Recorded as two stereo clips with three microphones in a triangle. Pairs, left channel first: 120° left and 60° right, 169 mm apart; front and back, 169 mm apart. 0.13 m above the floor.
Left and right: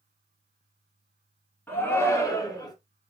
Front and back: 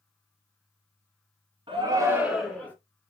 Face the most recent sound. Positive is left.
turn(degrees=70)